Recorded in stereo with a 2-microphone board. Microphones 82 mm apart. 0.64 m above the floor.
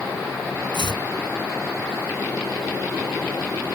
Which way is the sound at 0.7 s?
80° left.